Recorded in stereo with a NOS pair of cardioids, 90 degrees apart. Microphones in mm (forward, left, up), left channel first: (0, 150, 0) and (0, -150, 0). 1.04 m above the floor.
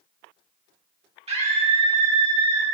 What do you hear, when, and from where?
1.3 s a scream: 20° right, 1.9 m